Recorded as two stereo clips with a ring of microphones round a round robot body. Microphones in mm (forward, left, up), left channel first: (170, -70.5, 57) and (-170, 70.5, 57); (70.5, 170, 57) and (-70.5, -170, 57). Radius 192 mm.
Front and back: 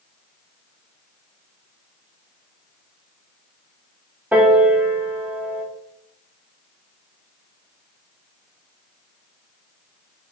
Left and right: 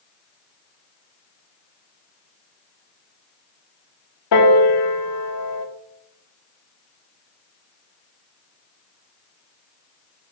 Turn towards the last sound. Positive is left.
turn(degrees=75)